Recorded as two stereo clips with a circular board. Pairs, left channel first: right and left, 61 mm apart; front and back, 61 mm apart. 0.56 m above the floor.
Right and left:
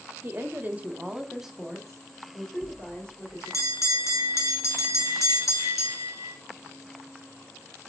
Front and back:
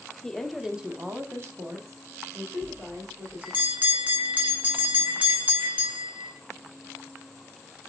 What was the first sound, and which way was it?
A woman speaking, 75° left.